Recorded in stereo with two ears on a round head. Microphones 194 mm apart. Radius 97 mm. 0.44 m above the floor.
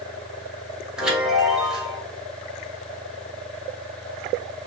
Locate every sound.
1.0 s a chime: 5° right (ahead or behind), 1.5 m